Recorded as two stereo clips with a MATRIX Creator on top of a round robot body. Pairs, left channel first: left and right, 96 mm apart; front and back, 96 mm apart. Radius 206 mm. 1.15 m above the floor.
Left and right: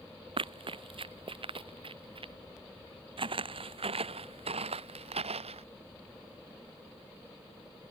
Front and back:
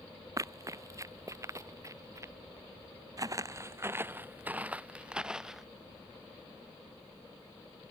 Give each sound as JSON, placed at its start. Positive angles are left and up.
{"t": 0.4, "sound": "running footsteps", "azimuth_deg": -120}
{"t": 3.2, "sound": "footsteps", "azimuth_deg": -125}